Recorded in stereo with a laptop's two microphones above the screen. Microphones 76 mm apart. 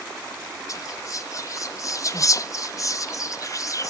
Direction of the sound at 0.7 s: 45° left (ahead or behind).